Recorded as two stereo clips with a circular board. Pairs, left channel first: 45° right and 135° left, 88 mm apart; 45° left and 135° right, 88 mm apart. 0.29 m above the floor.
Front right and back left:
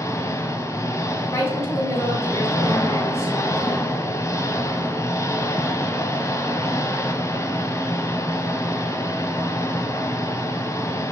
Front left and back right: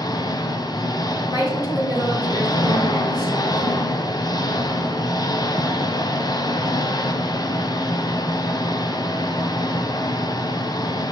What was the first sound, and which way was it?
An engine running, 10° left.